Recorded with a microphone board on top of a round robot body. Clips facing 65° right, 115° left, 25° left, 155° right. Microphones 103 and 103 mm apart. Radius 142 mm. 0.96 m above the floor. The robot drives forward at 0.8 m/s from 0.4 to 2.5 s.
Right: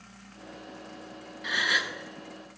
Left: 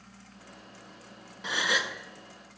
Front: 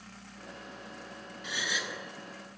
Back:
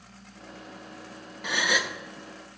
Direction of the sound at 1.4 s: 170° left.